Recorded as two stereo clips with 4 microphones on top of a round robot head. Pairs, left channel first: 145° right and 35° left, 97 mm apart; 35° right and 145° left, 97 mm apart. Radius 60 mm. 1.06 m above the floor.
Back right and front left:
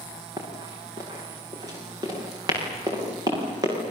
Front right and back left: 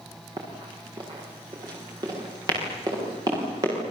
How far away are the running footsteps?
About 6 m.